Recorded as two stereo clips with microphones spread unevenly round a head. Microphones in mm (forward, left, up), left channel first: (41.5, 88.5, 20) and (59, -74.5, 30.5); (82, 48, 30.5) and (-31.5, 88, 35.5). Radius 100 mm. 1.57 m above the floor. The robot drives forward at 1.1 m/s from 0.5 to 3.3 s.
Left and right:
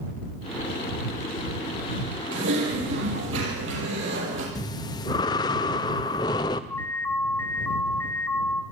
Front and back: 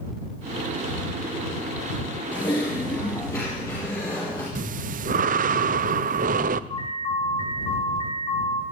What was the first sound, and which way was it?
Typing on a keyboard, 85° right.